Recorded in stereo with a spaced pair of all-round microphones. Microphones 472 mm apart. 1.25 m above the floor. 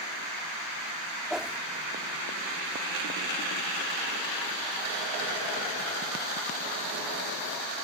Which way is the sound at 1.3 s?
Centre (ahead or behind).